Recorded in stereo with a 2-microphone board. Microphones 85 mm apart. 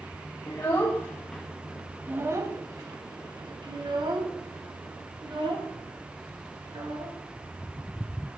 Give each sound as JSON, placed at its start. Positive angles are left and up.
{"t": 0.5, "sound": "a child speaking", "side_deg": 35, "distance_m": 1.0}